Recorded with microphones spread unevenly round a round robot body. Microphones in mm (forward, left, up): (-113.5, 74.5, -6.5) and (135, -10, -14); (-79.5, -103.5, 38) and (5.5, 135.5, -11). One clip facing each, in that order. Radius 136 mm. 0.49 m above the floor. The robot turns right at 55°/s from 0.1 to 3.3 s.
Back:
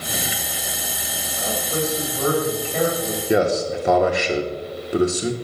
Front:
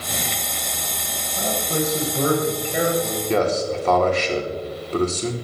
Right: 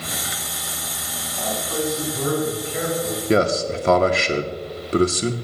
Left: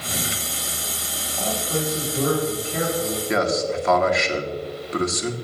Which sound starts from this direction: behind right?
A man speaking, at 3.3 s.